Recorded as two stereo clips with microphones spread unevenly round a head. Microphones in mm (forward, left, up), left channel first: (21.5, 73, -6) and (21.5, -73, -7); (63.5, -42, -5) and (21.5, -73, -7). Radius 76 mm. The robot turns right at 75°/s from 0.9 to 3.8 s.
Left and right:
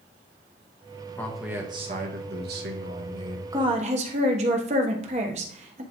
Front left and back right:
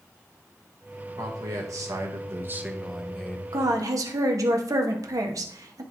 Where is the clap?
No clap in this recording.